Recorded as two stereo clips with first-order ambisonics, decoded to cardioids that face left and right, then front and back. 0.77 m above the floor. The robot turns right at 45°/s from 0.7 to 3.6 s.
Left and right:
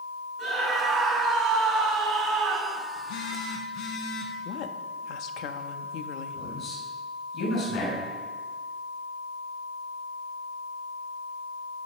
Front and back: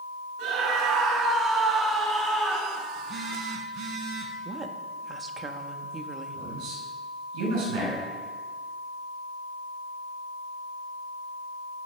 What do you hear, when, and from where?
0.4 s a scream: 165° right, 5 m; by 2.8 s 70° right, 5 m
3.0 s a phone buzzing: 105° left, 2 m; by 4.3 s 135° left, 2 m
4.5 s a woman speaking: 110° left, 1.0 m
6.3 s a man speaking: 150° left, 6.5 m